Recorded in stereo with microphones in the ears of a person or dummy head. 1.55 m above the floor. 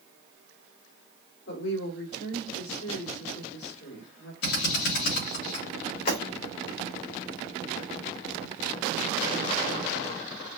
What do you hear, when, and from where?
1.5 s a woman speaking: 90° left, 1.8 m
4.4 s a drill: 80° left, 2.5 m
6.1 s breaking glass: 60° left (ahead or behind), 2 m